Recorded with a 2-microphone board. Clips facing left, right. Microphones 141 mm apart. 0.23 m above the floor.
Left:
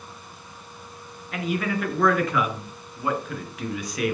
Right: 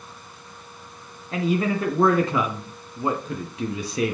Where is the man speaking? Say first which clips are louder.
Right 4 dB; 25° right (ahead or behind), 2.5 m.